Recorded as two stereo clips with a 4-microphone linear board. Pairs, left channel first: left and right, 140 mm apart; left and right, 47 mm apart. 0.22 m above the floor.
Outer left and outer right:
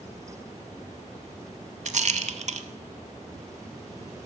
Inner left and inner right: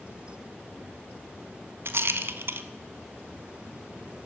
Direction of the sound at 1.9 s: 60° right (ahead or behind).